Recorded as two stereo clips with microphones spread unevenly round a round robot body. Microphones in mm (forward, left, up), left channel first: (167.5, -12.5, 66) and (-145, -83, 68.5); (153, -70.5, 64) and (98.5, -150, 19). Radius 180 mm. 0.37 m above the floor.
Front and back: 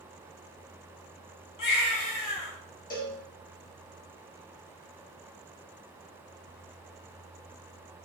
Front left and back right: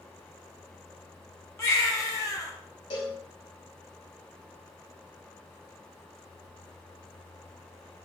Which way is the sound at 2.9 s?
80° left.